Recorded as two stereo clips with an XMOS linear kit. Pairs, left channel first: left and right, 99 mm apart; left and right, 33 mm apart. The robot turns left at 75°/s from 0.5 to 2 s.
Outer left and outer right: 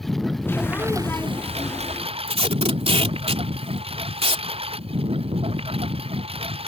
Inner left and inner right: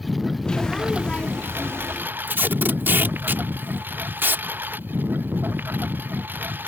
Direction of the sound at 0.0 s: Straight ahead.